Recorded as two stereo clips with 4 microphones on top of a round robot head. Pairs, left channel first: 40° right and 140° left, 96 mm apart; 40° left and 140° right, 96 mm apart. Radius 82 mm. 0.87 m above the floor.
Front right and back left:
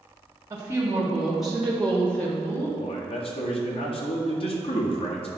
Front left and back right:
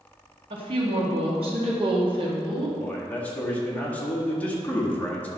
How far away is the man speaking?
About 1.9 m.